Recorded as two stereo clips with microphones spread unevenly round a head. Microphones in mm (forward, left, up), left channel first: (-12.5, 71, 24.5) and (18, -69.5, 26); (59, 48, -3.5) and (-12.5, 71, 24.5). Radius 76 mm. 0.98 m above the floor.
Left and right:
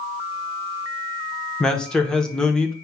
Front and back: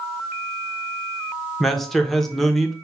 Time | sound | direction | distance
1.6 | a man speaking | 25° left | 0.8 m